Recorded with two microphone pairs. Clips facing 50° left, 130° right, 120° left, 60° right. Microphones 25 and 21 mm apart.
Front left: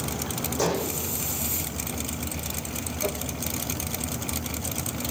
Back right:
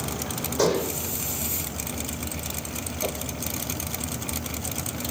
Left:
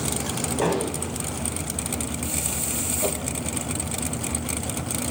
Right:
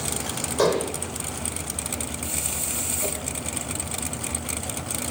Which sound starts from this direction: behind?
A whoosh, at 3.0 s.